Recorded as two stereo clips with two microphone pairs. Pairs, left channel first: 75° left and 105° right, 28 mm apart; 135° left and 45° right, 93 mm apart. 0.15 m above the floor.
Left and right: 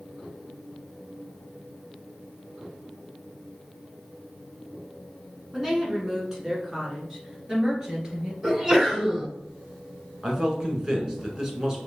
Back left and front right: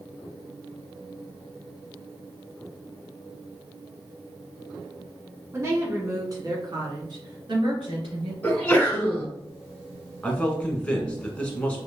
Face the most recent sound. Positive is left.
turn(degrees=-150)